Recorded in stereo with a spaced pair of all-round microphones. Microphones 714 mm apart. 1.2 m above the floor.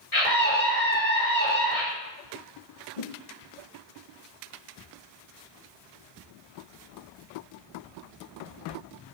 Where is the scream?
50° left (ahead or behind), 4 m.